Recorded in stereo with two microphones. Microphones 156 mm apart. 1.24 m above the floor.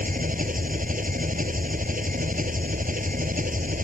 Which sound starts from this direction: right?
An engine running, at 0.0 s.